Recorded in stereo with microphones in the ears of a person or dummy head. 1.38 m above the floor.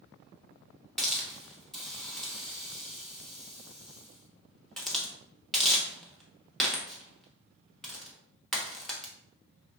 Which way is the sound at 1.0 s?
5° left (ahead or behind).